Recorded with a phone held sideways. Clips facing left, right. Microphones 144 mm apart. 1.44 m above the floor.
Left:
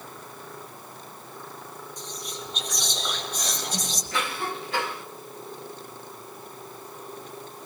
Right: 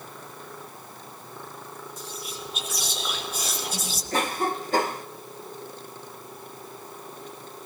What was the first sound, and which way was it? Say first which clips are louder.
Whispering: left 1 dB; 5° right (ahead or behind).